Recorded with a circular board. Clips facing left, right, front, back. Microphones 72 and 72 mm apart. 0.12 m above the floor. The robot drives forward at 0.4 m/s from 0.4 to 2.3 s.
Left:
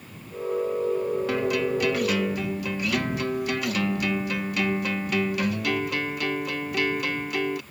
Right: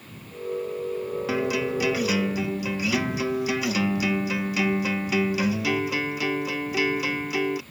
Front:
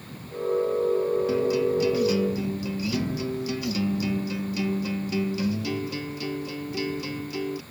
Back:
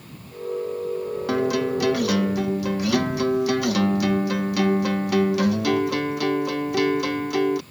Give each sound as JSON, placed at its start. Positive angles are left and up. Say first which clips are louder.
{"t": 1.3, "sound": "a guitar", "louder": "right 3 dB, back 1 dB", "azimuth_deg": -175}